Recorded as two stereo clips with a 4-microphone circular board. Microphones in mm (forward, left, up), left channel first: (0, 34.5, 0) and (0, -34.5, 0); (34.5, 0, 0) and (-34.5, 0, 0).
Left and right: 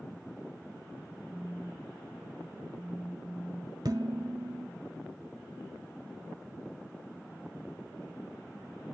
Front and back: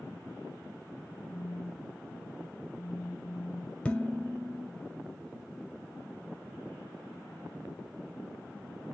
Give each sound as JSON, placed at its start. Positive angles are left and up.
{"t": 1.3, "sound": "a phone buzzing", "azimuth_deg": -175, "distance_m": 0.9}
{"t": 3.9, "sound": "dishes clattering", "azimuth_deg": -75, "distance_m": 1.6}